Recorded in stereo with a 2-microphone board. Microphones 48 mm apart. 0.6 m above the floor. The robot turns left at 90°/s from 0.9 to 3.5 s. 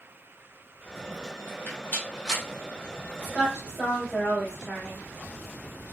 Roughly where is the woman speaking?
Right.